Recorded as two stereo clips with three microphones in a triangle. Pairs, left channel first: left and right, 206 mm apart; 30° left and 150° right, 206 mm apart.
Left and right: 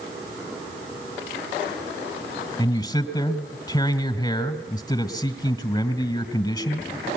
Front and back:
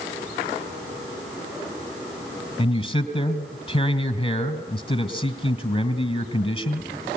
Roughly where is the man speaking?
Ahead left.